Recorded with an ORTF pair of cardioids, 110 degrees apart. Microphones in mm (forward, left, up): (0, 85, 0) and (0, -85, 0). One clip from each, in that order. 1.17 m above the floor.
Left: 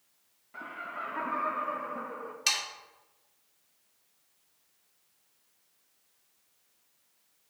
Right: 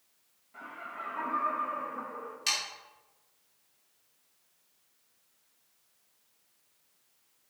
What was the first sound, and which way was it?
Laughter, 35° left.